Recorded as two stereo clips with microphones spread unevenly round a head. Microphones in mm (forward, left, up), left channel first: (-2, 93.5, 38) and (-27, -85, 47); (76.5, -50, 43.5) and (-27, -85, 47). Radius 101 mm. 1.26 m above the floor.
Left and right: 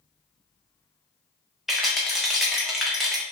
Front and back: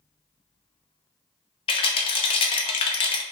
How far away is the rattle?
About 0.6 m.